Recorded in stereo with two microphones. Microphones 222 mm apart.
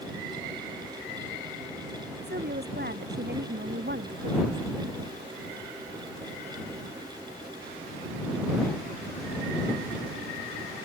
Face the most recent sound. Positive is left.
turn(degrees=-50)  # may be behind; listen again after turning